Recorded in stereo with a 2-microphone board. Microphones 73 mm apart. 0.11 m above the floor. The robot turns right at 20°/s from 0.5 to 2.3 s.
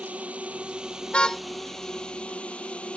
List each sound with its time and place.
0.0 s a drone: 20° right; by 3.0 s 15° left
1.1 s a car horn: 15° left (ahead or behind); by 1.4 s 10° left (ahead or behind)